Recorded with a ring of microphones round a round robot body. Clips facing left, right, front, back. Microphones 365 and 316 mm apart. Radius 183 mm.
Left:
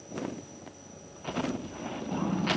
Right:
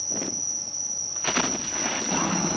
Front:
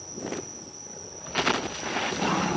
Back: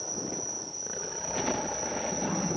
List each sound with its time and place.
0.0 s an insect: 100° right